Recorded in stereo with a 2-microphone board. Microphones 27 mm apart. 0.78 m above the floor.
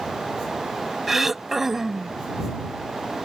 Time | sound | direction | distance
1.1 | throat clearing | 10° right (ahead or behind) | ?